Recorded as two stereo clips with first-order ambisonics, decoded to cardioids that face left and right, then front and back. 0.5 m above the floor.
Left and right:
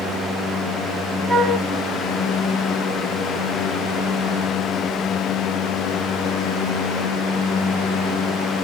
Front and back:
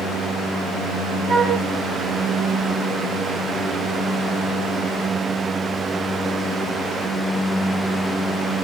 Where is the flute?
175° left, 1.0 m.